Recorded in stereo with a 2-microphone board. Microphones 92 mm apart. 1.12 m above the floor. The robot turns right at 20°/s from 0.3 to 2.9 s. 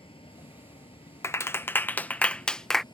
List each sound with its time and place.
0.0 s a vehicle: 75° left (ahead or behind); by 2.9 s 55° left (ahead or behind)
1.2 s a clap: 30° left (ahead or behind); by 2.8 s 5° left (ahead or behind)